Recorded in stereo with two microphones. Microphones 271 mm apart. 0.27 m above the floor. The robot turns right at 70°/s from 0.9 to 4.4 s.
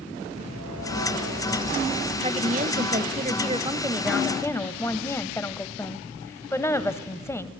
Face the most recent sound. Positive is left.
turn(degrees=20)